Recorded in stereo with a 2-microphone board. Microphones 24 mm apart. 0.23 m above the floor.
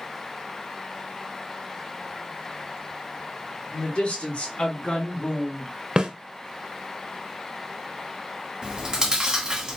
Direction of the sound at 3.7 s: 60° left (ahead or behind).